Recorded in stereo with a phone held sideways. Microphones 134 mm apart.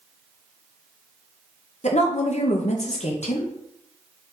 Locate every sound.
1.8 s a woman speaking: 55° left (ahead or behind), 0.9 m